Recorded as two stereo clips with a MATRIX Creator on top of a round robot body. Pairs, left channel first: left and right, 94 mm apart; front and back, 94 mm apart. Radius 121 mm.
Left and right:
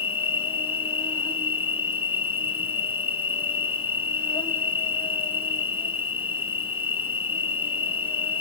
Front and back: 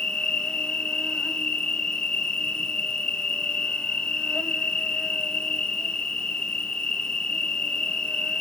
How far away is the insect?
About 1.7 m.